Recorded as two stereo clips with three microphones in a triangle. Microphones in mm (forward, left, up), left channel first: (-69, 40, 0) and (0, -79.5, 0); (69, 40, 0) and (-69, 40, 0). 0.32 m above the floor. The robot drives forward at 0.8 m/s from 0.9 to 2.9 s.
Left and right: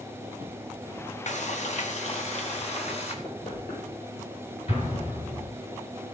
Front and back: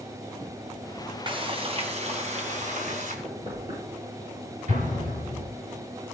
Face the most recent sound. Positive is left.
turn(degrees=155)